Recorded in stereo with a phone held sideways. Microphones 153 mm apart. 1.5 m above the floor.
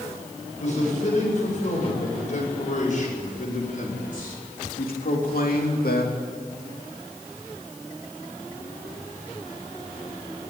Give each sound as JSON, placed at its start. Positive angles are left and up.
{"t": 0.6, "sound": "a man speaking", "side_deg": 50, "distance_m": 8.5}